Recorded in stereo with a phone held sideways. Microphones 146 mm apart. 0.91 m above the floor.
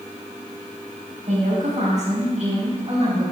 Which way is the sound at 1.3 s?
55° right (ahead or behind).